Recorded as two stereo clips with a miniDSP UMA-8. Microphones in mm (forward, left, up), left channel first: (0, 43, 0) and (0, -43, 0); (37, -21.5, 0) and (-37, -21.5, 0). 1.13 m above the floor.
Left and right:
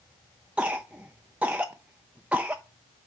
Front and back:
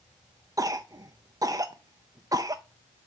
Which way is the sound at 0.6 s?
165° right.